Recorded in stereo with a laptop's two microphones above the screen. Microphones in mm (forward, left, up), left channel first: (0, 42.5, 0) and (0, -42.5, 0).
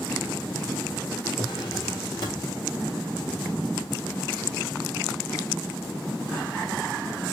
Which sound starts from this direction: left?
A drawer, at 1.4 s.